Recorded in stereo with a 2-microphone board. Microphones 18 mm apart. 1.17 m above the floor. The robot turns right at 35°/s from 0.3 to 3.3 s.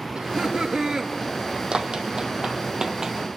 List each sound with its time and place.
0.1 s laughter: 60° right (ahead or behind), 2 m; by 1.1 s 35° right (ahead or behind), 2 m
1.7 s running footsteps: 50° right (ahead or behind), 2.0 m; by 3.3 s 25° right (ahead or behind), 1.5 m